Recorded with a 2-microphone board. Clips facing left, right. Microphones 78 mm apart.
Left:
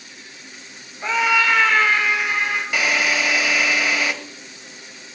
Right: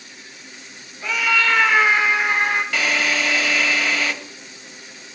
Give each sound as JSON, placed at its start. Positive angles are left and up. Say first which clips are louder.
{"t": 1.0, "sound": "a scream", "louder": "left 2 dB", "side_deg": 40, "distance_m": 1.6}
{"t": 2.7, "sound": "a drill", "louder": "left 1 dB", "side_deg": 15, "distance_m": 1.4}